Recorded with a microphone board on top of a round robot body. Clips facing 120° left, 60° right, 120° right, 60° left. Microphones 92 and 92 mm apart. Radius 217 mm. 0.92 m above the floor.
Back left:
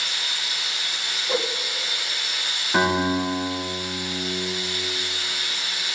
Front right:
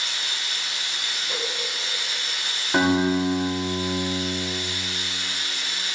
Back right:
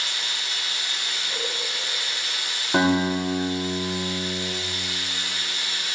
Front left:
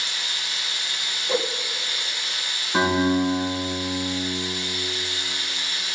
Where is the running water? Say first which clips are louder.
Back left 1 dB, even; 155° right, 3.5 m.